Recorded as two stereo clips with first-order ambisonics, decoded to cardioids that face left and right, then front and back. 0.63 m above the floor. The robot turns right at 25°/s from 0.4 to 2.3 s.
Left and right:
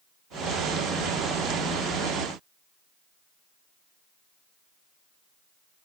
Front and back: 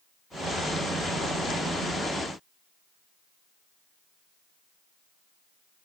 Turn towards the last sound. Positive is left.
No sound to turn to.